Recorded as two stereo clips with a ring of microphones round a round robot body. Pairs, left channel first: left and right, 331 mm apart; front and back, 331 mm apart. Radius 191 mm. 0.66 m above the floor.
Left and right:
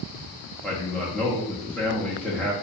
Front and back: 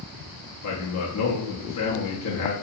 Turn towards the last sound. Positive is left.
turn(degrees=5)